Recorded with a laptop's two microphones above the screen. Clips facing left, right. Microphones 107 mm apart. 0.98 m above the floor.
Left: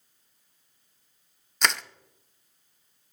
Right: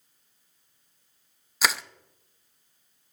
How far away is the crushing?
About 0.6 m.